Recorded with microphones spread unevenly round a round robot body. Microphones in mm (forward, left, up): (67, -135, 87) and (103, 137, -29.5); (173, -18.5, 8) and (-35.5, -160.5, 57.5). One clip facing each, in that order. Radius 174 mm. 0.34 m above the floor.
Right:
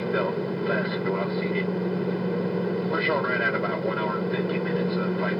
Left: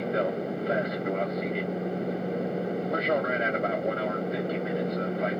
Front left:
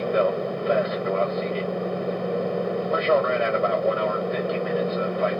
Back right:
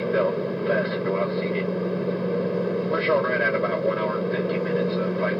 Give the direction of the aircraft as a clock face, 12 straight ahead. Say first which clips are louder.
Right 3 dB, even; 3 o'clock.